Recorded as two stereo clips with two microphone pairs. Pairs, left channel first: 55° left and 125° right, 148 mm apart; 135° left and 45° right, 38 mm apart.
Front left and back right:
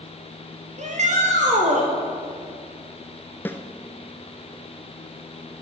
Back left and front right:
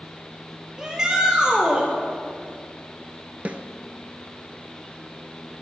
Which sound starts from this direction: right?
A shout, at 0.8 s.